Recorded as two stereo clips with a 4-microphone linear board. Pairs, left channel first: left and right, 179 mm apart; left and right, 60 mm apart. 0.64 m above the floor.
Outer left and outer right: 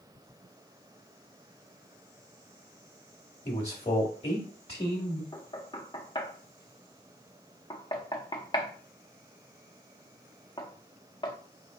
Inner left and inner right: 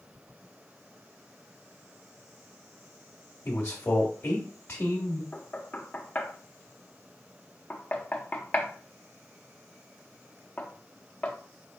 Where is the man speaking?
35° left (ahead or behind), 1.0 m.